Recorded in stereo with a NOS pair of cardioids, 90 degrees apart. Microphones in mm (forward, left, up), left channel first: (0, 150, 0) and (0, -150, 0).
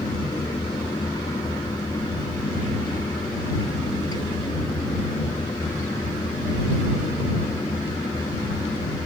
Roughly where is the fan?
Ahead.